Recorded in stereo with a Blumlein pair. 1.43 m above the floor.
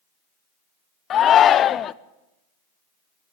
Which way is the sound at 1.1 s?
25° left.